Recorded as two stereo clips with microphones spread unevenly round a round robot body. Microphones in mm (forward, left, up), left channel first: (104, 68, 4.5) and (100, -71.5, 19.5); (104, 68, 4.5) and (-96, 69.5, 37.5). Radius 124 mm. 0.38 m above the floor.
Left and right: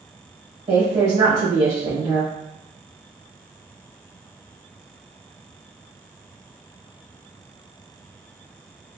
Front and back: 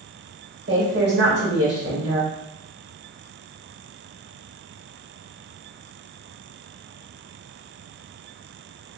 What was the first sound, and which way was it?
A woman speaking, 160° right.